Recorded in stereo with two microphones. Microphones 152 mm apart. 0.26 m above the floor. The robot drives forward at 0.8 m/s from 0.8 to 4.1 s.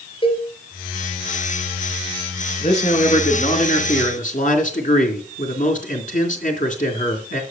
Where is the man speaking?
45° left (ahead or behind), 4 m; by 7.4 s 60° left (ahead or behind), 3.5 m.